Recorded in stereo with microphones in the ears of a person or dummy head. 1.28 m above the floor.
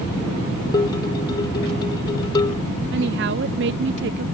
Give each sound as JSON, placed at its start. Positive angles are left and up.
{"t": 0.7, "sound": "dishes clattering", "side_deg": 25}
{"t": 2.9, "sound": "a woman speaking", "side_deg": -60}